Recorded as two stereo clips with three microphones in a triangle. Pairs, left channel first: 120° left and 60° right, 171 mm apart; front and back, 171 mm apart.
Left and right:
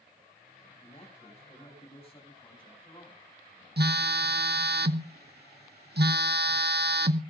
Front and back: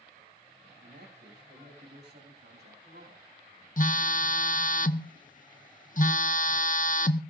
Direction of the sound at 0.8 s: 170° left.